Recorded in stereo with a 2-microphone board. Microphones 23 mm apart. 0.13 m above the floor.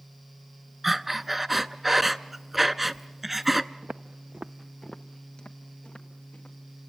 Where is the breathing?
10° right (ahead or behind), 0.5 m.